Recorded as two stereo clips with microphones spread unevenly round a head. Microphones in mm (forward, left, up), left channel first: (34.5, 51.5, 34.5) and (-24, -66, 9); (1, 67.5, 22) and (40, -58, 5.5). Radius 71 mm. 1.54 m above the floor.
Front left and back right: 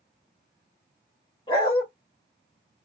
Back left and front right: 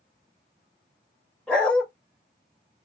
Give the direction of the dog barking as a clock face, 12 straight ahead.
11 o'clock.